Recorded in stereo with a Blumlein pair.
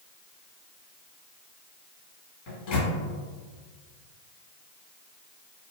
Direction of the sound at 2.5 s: 40° left.